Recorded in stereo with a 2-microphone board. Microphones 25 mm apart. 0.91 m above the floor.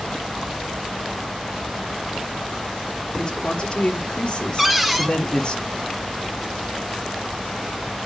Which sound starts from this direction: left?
A man speaking, at 3.2 s.